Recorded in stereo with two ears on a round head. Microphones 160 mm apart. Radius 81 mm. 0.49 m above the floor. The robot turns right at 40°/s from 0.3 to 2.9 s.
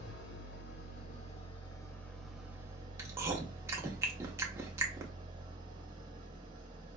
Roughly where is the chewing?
Centre.